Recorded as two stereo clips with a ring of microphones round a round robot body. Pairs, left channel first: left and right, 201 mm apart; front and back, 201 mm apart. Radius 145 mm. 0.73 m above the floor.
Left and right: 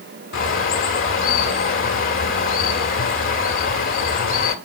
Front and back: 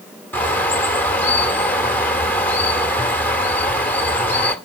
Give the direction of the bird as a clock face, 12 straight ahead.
9 o'clock.